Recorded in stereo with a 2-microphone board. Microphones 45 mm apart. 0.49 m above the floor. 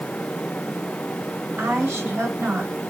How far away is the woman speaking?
About 4.5 m.